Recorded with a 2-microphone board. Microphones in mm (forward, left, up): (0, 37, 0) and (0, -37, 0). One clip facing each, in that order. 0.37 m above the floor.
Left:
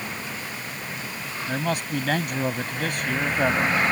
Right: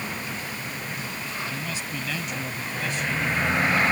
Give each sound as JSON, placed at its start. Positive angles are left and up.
{"t": 1.5, "sound": "a man speaking", "side_deg": 60}